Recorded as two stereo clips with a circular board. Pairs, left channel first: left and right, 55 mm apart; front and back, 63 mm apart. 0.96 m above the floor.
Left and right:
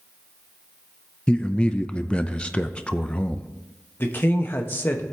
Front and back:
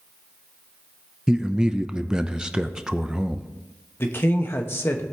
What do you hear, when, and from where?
1.3 s a man speaking: 120° left, 0.6 m
4.0 s a man speaking: 50° left, 1.3 m